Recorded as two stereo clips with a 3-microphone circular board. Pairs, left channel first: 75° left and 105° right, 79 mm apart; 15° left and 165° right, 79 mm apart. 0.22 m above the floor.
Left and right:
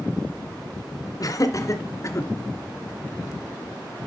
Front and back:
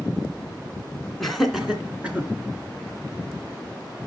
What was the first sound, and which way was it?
Laughter, 100° left.